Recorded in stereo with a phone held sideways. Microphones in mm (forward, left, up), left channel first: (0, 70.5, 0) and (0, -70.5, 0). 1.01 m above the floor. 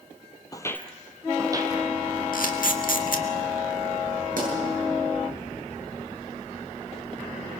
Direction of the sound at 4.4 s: 80° right.